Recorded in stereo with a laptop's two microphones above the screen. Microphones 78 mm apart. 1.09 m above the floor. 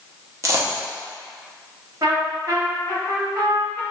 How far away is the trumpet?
About 1.2 m.